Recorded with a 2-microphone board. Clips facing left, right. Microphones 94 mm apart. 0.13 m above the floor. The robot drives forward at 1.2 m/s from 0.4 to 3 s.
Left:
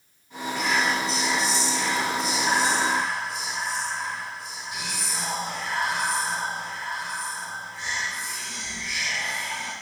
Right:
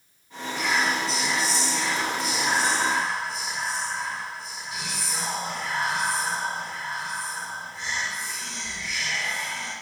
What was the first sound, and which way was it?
Whispering, 5° right (ahead or behind).